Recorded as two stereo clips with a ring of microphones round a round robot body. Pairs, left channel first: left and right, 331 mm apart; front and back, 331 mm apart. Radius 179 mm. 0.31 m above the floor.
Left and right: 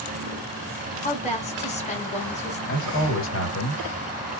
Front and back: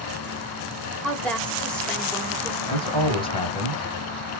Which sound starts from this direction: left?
A woman speaking, at 1.0 s.